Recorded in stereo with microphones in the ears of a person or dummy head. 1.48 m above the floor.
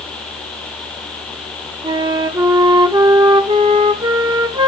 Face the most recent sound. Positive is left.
turn(degrees=-20)  # may be behind; listen again after turning